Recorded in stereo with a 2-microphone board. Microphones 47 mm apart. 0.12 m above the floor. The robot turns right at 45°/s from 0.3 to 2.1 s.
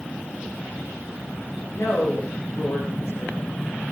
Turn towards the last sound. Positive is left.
turn(degrees=60)  # may be behind; listen again after turning